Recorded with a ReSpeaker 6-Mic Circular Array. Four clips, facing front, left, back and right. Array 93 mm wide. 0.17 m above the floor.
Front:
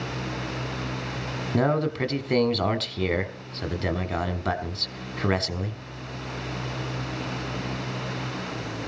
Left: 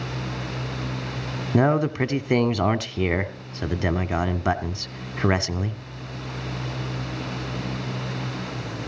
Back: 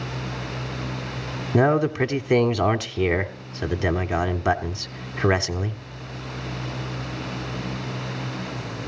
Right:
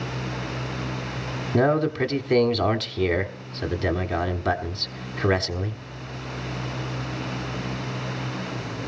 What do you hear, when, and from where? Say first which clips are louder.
1.5 s a man speaking: even, back 5 dB; 140° left, 1.0 m